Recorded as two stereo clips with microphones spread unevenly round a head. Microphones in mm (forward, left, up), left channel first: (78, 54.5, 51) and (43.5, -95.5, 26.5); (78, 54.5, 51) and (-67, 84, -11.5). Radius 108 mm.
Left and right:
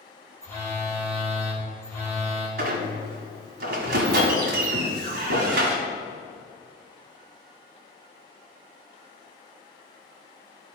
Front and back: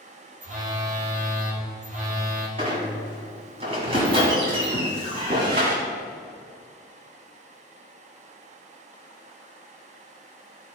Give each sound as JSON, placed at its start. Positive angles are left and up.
{"t": 0.4, "sound": "a phone buzzing", "azimuth_deg": 155, "distance_m": 1.8}
{"t": 2.6, "sound": "a squeak", "azimuth_deg": -115, "distance_m": 1.4}